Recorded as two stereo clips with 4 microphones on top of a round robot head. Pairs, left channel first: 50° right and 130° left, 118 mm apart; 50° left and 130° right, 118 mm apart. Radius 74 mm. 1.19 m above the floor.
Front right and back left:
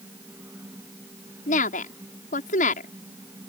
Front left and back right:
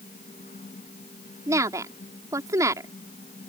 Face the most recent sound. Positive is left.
turn(degrees=-65)